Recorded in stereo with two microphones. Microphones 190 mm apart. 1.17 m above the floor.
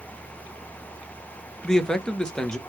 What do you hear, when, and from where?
1.6 s a man speaking: 5° left (ahead or behind), 0.6 m